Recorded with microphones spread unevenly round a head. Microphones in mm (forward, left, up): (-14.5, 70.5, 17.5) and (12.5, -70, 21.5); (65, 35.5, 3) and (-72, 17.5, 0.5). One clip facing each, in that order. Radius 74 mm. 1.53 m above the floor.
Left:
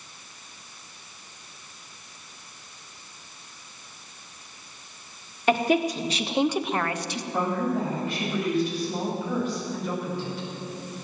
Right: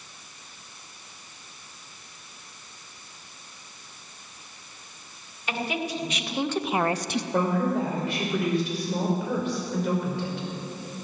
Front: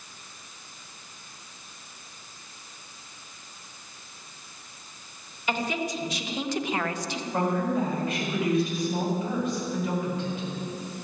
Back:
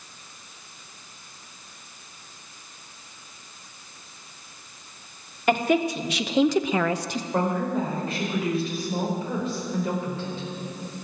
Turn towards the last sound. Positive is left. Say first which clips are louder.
# right 1 dB, back 1 dB
turn(degrees=-110)